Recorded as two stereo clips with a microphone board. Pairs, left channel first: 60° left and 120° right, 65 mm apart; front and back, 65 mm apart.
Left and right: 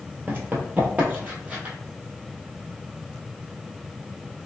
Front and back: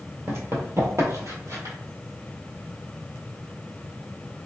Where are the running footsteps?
160° right, 1.4 m; by 1.8 s 175° left, 1.9 m.